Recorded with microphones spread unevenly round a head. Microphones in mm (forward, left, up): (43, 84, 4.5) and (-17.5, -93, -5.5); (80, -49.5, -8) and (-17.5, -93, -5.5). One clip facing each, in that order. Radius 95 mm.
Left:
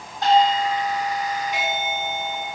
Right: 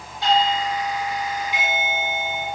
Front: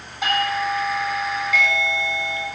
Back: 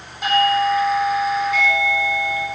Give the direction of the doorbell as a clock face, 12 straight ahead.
11 o'clock.